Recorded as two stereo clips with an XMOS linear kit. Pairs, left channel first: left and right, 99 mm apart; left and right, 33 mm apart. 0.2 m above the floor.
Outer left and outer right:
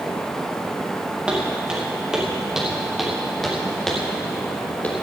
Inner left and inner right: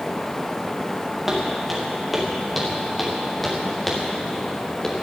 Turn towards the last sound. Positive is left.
turn(degrees=15)  # may be behind; listen again after turning